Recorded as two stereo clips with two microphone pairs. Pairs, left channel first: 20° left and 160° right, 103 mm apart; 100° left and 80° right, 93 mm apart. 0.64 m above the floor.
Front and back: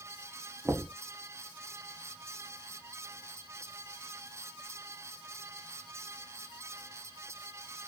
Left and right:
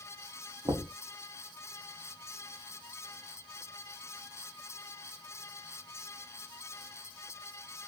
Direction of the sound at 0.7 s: 95° right.